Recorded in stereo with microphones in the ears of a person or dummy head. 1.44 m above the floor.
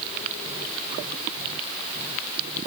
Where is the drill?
No drill in this recording.